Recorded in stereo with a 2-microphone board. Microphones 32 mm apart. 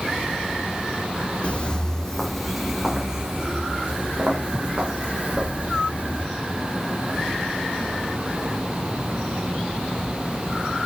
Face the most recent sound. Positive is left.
turn(degrees=-35)  # may be behind; listen again after turning